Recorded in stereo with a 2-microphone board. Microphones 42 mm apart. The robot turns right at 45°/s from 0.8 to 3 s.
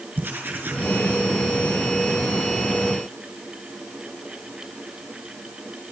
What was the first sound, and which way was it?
Writing, 55° right (ahead or behind).